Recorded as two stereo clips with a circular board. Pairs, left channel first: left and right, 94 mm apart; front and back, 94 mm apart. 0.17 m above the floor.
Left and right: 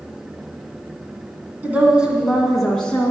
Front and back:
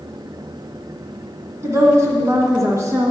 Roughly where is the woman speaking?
Behind right.